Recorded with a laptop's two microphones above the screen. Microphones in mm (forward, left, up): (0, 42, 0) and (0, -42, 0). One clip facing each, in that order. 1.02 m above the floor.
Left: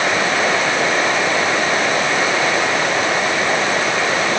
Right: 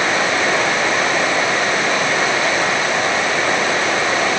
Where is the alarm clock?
No alarm clock in this recording.